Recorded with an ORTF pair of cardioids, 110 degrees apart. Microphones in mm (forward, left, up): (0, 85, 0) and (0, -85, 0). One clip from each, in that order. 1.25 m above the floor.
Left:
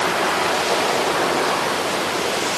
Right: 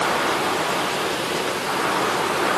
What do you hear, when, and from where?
Only background noise.